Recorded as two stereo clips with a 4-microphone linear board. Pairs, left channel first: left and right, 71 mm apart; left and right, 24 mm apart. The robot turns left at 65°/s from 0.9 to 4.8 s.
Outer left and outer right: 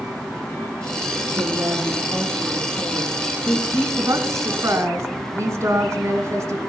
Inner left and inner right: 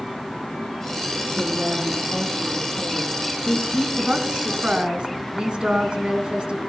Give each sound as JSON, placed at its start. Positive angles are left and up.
{"t": 1.3, "sound": "a woman speaking", "azimuth_deg": -120, "distance_m": 8.5}
{"t": 4.0, "sound": "a woman speaking", "azimuth_deg": -65, "distance_m": 2.0}